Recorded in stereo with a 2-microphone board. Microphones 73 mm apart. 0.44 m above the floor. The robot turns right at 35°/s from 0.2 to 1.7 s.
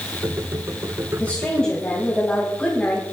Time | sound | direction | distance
1.2 | a woman speaking | 25° left (ahead or behind) | 2.5 m